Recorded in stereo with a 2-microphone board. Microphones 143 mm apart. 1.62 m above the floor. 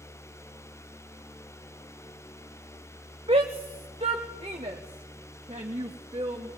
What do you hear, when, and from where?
3.3 s a shout: 40° right (ahead or behind), 1.2 m